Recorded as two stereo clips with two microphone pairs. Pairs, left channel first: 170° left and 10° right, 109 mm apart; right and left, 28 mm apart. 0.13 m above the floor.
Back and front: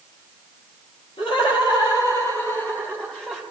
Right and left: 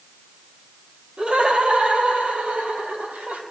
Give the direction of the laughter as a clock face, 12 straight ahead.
7 o'clock.